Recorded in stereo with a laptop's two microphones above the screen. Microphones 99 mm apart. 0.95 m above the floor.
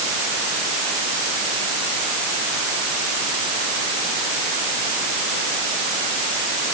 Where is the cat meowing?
I don't hear a cat meowing.